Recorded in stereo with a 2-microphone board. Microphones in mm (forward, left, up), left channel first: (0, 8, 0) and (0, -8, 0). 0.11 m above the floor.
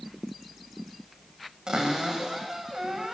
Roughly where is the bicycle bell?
No bicycle bell in this recording.